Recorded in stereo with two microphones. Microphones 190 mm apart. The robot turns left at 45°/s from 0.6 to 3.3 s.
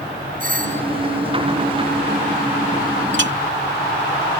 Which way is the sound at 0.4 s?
45° right (ahead or behind).